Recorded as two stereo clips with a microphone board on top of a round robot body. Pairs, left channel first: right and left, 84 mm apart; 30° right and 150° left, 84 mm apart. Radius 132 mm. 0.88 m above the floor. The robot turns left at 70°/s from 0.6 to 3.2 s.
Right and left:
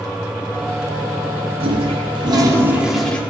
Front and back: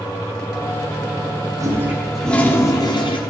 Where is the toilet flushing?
100° left, 1.3 m; by 3.2 s 15° right, 1.3 m.